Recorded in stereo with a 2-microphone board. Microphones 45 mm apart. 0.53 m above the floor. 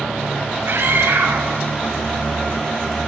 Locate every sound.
0.7 s a scream: 65° right (ahead or behind), 4 m